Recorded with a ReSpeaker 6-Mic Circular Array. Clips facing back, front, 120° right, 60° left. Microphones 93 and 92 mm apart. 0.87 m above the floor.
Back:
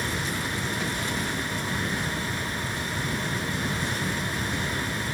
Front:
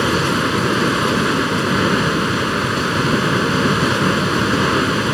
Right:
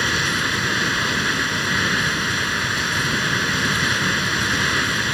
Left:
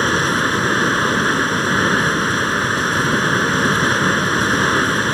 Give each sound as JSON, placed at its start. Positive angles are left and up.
{"t": 0.0, "sound": "running water", "azimuth_deg": 10}